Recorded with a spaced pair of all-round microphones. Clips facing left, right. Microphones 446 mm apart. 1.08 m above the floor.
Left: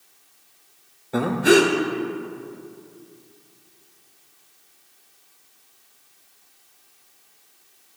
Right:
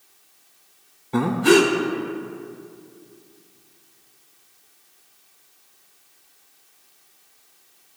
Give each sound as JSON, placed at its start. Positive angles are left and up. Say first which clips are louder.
{"t": 1.1, "sound": "breathing", "louder": "right 1 dB", "side_deg": -15, "distance_m": 0.5}